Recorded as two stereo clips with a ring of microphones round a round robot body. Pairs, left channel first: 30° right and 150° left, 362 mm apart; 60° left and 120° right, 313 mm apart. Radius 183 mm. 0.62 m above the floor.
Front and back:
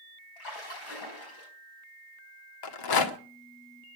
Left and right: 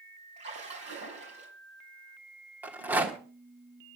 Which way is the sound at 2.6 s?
35° right.